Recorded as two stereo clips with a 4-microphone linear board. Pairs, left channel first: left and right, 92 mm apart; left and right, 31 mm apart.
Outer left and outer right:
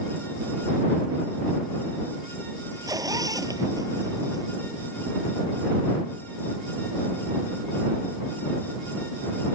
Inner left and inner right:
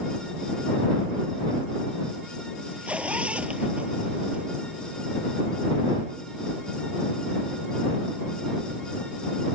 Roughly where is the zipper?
Right.